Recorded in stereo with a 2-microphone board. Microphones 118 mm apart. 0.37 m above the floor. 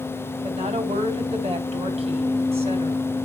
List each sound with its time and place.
0.4 s a woman speaking: 60° right (ahead or behind), 3 m